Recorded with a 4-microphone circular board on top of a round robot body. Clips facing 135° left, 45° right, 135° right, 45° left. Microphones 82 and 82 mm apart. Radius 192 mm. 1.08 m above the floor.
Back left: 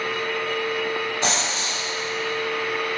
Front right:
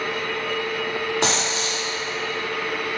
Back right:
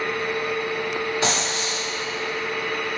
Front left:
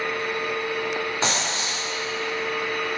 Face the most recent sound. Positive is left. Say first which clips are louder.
# front right 2 dB, back right 2 dB
turn(degrees=-20)